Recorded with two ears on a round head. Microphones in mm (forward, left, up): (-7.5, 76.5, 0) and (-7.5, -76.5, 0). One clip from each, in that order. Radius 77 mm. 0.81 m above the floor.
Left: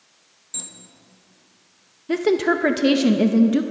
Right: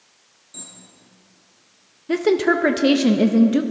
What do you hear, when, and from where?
0.5 s an alarm: 60° left (ahead or behind), 1.7 m
2.1 s a woman speaking: centre (ahead or behind), 0.5 m